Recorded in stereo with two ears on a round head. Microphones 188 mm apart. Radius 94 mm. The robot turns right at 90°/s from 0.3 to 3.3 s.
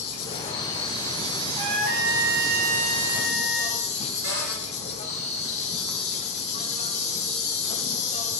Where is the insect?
125° left, 3 m; by 8.4 s 35° left, 3 m.